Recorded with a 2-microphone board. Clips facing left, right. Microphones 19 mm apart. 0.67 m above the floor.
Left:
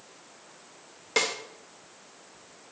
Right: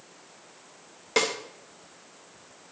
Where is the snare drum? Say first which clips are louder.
Right 1 dB; centre (ahead or behind), 2 m.